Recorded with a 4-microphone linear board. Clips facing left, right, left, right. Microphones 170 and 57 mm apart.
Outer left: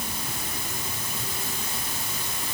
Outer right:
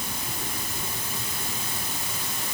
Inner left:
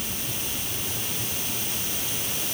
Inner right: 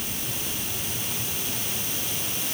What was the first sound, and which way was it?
Only background noise.